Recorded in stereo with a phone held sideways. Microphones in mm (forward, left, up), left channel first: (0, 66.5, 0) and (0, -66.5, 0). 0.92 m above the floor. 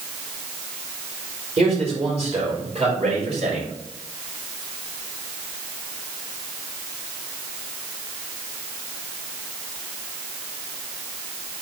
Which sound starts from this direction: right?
A man speaking, at 1.6 s.